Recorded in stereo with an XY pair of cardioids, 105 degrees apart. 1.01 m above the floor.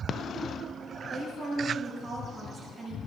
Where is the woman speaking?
45° right, 6.5 m.